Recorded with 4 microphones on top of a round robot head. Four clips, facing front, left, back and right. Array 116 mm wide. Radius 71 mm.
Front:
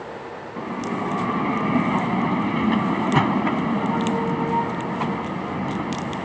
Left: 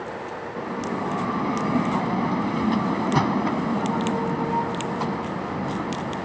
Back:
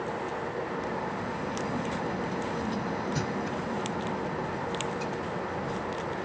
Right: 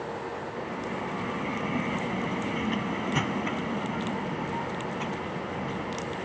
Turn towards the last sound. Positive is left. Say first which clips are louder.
# left 8 dB, front 5 dB
turn(degrees=30)